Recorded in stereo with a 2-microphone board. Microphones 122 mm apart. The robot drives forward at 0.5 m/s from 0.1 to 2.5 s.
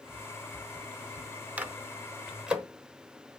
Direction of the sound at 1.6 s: 10° right (ahead or behind).